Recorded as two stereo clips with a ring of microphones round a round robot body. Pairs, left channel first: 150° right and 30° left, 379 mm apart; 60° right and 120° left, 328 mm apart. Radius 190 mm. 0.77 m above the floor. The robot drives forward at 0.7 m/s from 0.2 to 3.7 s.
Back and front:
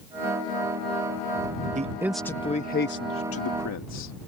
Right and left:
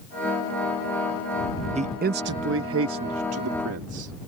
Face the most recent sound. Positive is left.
turn(degrees=165)